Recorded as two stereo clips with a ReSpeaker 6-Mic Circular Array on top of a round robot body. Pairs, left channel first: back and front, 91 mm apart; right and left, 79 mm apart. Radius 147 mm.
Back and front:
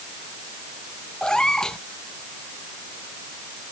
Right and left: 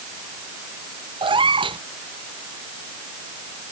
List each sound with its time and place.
1.2 s a cat meowing: 95° left